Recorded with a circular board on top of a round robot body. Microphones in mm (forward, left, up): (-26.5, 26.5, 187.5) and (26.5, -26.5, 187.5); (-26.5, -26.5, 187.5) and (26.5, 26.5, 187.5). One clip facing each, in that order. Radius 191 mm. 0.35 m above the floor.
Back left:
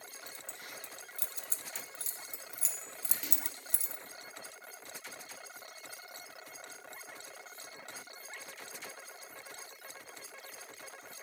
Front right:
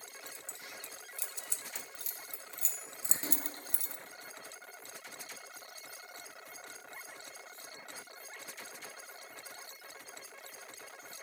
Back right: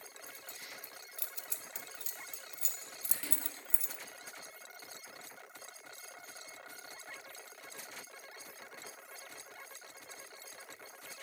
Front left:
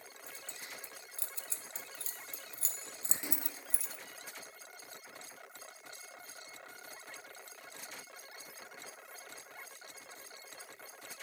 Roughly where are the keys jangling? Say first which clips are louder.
Back left 2 dB, front left 3 dB; left.